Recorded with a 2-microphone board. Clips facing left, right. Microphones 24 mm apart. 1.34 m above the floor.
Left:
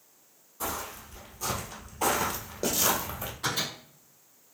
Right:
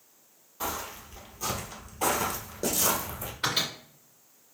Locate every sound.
0.6 s footsteps: 35° right (ahead or behind), 1.6 m; by 3.3 s 35° left (ahead or behind), 1.6 m
3.4 s a microwave: 85° right, 1.9 m